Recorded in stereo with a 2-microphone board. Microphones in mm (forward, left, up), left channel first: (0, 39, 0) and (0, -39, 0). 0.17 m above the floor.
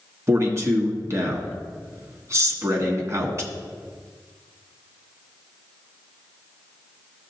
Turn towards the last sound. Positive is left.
turn(degrees=-40)  # may be behind; listen again after turning